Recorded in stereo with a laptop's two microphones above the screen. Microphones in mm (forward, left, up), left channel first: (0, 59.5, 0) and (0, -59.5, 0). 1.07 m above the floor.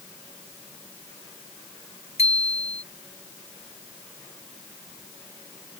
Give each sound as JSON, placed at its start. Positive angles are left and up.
{"t": 2.2, "sound": "a bicycle bell", "side_deg": 60}